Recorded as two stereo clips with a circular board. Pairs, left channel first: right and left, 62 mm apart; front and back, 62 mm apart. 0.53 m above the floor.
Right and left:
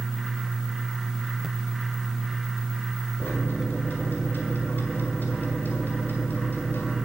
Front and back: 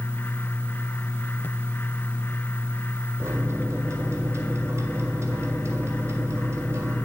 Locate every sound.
3.2 s a microwave: 145° right, 1.6 m